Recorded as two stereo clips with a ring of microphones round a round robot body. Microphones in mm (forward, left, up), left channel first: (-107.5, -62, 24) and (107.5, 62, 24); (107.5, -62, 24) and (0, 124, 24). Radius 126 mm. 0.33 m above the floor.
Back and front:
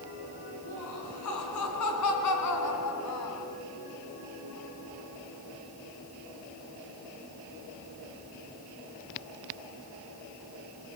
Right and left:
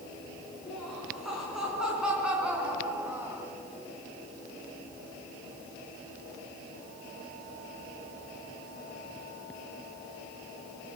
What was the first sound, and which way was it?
Laughter, 150° right.